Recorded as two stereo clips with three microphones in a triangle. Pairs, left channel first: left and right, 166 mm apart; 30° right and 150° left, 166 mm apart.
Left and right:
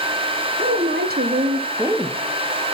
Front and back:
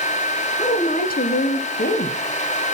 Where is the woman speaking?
85° right, 1.1 m; by 2.8 s 15° left, 1.3 m.